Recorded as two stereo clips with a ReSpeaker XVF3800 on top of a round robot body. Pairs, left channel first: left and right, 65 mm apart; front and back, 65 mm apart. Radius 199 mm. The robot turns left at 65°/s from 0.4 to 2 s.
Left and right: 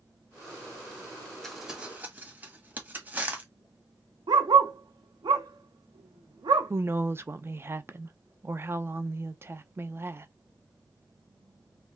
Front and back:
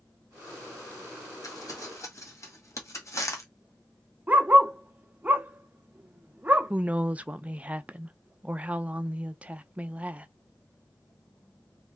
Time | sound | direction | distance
1.4 | crumpling | 5° left | 1.7 m
4.3 | a dog barking | 115° right | 0.6 m
6.7 | a woman speaking | 120° right | 0.7 m